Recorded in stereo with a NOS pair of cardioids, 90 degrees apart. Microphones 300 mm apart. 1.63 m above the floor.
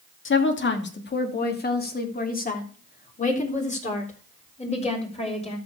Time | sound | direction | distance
0.2 | a woman speaking | 45° left | 2 m